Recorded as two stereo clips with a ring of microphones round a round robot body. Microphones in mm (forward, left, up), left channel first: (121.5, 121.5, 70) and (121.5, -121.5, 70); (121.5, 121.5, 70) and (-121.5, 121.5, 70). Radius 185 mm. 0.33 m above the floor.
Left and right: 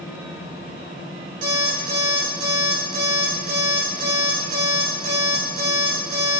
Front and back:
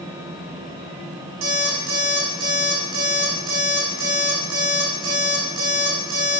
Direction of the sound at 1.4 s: 155° right.